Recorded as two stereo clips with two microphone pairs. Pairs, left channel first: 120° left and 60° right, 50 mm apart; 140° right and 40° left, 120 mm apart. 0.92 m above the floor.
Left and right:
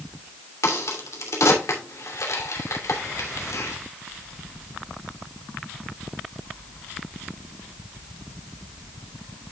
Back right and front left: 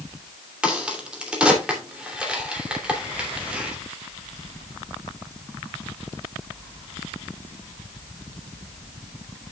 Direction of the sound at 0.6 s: 120° left.